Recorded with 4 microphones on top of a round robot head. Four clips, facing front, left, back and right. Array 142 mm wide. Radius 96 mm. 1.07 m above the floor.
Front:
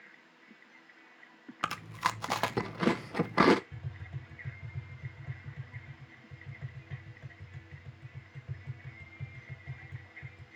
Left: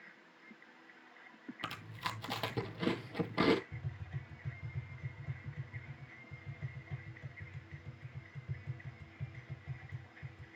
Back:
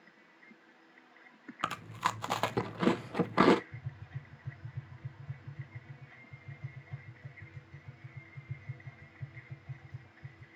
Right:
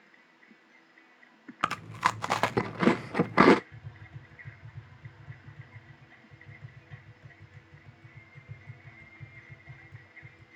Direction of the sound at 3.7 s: 30° left.